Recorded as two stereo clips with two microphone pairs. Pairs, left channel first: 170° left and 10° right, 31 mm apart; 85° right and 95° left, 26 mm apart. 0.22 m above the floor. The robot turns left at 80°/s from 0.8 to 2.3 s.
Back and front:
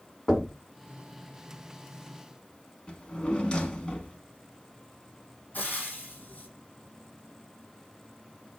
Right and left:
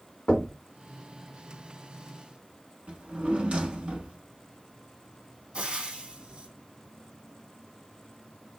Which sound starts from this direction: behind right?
Knocking, at 0.3 s.